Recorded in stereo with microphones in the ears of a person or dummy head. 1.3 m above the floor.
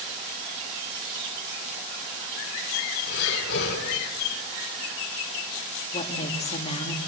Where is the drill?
No drill in this recording.